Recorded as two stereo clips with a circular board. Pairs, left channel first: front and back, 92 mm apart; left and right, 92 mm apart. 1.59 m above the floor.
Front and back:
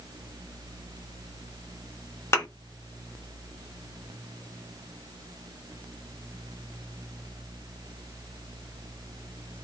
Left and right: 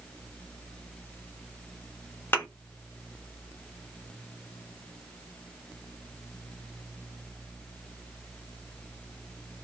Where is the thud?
40° left, 1.1 m.